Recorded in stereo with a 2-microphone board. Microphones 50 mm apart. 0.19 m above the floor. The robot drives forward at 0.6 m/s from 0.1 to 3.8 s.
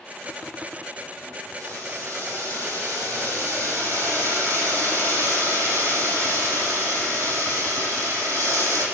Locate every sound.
1.6 s boiling: 80° right, 8.5 m; by 8.9 s 75° right (ahead or behind), 8.5 m